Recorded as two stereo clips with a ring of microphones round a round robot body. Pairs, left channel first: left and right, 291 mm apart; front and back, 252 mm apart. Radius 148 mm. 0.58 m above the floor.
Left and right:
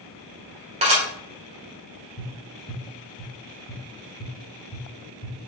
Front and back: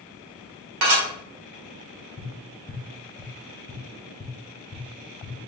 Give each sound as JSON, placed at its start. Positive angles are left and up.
{"t": 0.8, "sound": "dishes clattering", "azimuth_deg": -160, "distance_m": 1.6}
{"t": 2.2, "sound": "tapping", "azimuth_deg": 45, "distance_m": 1.0}